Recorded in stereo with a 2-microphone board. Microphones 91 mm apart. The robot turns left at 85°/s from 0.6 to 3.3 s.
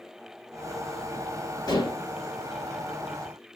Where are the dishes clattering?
140° left, 2 m; by 2.0 s 105° left, 2 m.